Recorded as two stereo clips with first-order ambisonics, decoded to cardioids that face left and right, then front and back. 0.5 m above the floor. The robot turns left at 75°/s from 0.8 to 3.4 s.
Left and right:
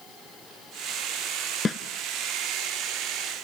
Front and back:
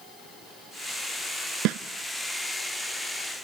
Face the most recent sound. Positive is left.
turn(degrees=30)